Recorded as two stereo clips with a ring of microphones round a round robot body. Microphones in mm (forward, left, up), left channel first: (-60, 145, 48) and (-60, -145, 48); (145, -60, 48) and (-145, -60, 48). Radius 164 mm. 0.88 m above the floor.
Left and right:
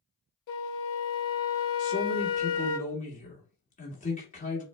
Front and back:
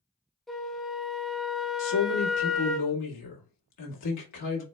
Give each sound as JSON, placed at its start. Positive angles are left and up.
{"t": 0.5, "sound": "a flute", "azimuth_deg": 90, "distance_m": 0.6}
{"t": 1.8, "sound": "a man speaking", "azimuth_deg": 20, "distance_m": 1.4}